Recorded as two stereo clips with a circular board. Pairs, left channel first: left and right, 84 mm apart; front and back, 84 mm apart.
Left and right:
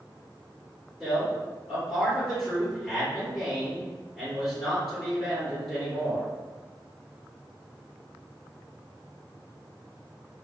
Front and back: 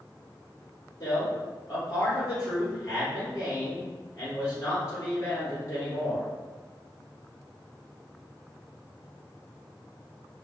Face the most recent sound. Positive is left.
turn(degrees=-5)